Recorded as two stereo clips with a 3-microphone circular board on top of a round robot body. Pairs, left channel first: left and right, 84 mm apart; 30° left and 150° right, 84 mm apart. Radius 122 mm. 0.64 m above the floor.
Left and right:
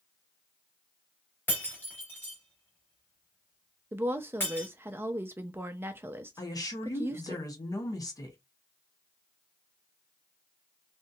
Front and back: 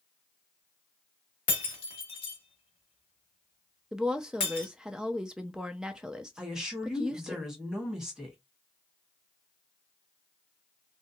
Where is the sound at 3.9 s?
75° right, 0.5 m.